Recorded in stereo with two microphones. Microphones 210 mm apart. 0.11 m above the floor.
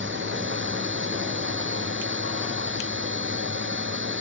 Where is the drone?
65° right (ahead or behind).